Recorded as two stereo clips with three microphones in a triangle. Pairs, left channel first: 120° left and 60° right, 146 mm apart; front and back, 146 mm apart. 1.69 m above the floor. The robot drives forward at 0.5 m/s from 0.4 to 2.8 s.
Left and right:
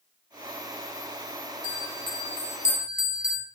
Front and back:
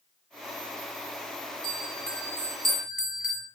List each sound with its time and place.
1.6 s a bell: 50° left, 0.9 m; by 3.5 s 95° left, 0.7 m